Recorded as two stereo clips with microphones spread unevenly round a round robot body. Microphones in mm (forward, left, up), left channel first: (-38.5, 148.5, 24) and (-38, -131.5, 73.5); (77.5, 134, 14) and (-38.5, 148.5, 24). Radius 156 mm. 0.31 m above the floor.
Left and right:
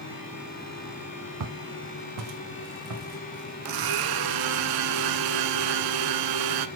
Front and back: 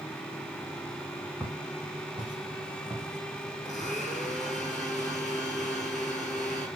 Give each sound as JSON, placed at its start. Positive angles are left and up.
{"t": 1.4, "sound": "footsteps", "azimuth_deg": -105, "distance_m": 1.4}
{"t": 3.6, "sound": "a blender", "azimuth_deg": -95, "distance_m": 1.0}